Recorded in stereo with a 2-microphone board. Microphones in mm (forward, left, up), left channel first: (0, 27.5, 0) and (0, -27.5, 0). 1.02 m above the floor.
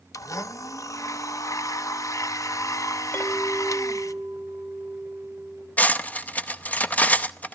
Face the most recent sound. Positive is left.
turn(degrees=30)  # may be behind; listen again after turning